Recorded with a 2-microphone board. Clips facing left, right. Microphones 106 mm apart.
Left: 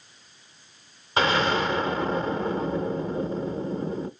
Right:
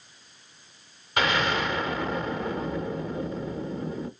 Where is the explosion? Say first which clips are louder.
Left 3 dB; 30° left (ahead or behind), 0.7 m.